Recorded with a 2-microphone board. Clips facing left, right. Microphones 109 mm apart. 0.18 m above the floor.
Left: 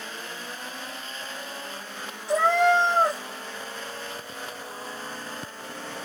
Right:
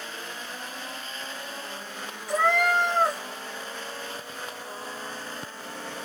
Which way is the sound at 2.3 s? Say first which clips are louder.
Left 3 dB; 25° left (ahead or behind).